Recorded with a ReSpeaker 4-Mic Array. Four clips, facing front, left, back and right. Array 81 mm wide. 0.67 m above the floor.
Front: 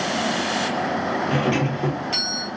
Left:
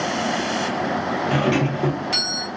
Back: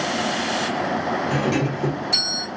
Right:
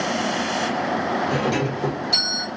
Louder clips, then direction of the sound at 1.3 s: Left 2 dB, even; 70° left.